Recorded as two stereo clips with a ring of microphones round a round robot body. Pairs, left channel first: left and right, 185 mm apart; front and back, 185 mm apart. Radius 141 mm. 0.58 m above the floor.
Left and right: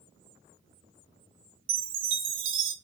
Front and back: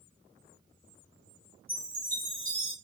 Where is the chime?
85° right, 0.7 m.